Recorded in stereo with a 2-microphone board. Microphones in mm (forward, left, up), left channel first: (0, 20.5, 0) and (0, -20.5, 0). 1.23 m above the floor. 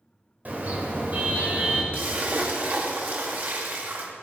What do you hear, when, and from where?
0.5 s a car horn: 40° right (ahead or behind), 3 m
1.9 s a splash: 50° right (ahead or behind), 2 m